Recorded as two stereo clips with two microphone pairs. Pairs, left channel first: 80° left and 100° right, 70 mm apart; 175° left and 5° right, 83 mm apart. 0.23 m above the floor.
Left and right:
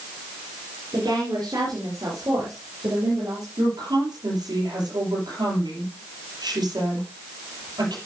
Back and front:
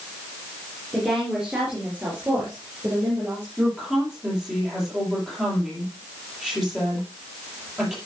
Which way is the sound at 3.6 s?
85° right.